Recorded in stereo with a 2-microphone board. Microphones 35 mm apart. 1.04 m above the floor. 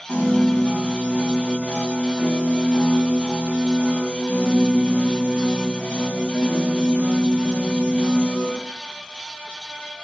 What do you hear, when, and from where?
0.1 s a piano: 70° left (ahead or behind), 6 m